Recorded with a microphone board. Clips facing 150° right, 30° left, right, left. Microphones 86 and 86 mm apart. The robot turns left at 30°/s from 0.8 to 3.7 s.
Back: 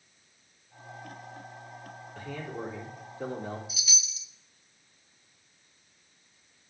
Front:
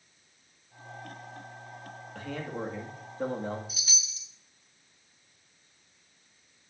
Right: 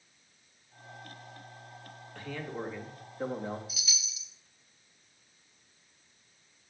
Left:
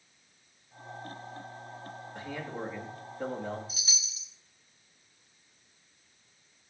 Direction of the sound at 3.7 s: 55° left.